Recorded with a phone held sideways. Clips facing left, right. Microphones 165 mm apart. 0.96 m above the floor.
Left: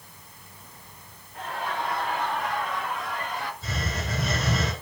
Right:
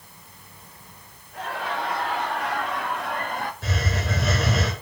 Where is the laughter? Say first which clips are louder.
Right 2 dB; 85° right, 4.5 m; by 3.5 s 50° right (ahead or behind), 1.5 m.